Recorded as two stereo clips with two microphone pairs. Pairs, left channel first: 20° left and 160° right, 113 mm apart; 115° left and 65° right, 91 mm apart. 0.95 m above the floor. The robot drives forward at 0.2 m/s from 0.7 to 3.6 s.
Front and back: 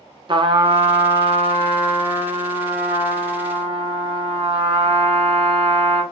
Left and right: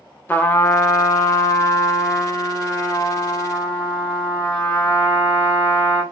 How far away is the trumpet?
About 0.5 m.